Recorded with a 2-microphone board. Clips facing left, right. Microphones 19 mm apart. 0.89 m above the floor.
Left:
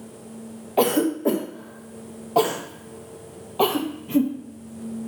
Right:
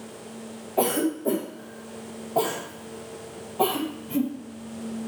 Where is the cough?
45° left (ahead or behind), 0.6 m.